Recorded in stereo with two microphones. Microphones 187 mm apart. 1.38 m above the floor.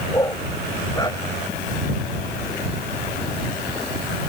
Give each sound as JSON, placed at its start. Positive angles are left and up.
{"t": 0.1, "sound": "a dog barking", "side_deg": 20}